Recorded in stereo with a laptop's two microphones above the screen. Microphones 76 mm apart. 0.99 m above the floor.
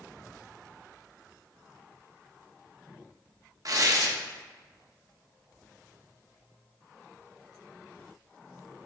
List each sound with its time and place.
3.6 s tearing paper: 50° right (ahead or behind), 1.0 m